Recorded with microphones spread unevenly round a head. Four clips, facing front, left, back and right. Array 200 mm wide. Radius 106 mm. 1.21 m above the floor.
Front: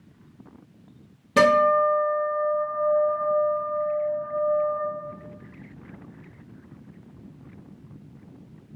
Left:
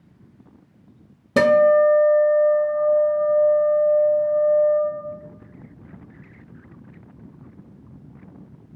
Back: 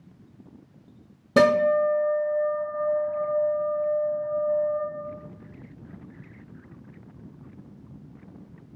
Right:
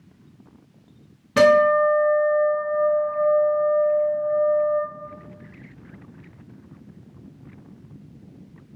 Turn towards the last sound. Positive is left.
turn(degrees=140)